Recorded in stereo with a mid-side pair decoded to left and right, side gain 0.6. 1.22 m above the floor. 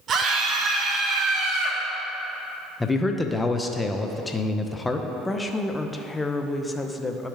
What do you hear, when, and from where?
0.1 s a scream: 45° right, 1.8 m; by 1.8 s 50° right, 3 m
2.8 s a man speaking: 15° left, 0.7 m
5.2 s a woman speaking: 15° left, 0.7 m